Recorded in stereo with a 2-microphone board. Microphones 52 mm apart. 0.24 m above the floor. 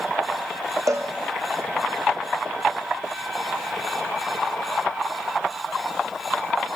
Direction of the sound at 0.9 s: 85° right.